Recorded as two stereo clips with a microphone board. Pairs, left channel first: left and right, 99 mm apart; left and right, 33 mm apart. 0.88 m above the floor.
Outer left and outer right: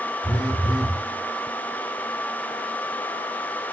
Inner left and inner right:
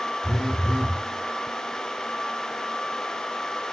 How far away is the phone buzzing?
About 1.5 m.